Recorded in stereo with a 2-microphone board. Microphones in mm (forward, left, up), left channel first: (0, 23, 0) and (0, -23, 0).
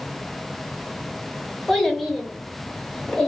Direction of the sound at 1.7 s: Centre (ahead or behind).